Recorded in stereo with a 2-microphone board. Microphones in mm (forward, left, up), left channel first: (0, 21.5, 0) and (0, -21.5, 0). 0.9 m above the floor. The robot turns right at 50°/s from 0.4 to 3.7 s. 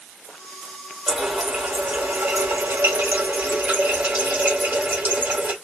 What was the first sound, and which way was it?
A running tap, 175° right.